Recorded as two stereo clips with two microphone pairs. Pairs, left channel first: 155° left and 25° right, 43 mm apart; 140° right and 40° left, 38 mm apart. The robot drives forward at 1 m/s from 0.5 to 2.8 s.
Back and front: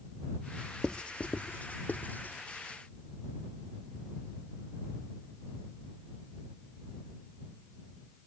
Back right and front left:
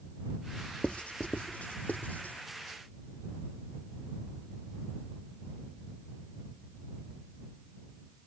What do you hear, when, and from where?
0.8 s writing: 155° right; by 2.4 s 170° right